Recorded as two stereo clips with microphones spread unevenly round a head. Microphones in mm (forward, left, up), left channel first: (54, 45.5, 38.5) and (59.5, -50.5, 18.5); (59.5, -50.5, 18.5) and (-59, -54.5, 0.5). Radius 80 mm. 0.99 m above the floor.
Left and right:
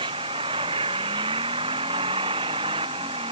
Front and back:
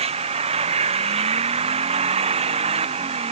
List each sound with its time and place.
0.0 s an engine running: 145° right